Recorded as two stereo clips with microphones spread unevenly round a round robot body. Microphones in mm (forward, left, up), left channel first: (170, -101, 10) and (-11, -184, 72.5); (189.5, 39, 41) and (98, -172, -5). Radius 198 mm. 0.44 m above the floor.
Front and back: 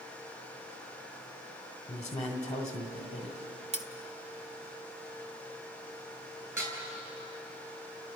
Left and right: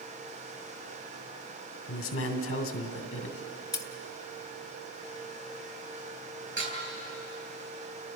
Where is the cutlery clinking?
145° left, 0.5 m.